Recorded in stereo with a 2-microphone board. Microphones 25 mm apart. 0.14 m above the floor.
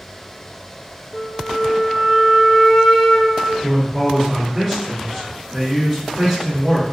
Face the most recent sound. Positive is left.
turn(degrees=20)  # may be behind; listen again after turning